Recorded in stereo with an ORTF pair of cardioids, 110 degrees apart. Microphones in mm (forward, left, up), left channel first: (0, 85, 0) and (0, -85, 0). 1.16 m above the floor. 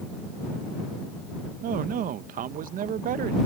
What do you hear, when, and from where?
1.6 s a man speaking: 55° right